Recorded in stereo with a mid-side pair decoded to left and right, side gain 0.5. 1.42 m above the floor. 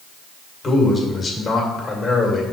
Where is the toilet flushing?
I don't hear a toilet flushing.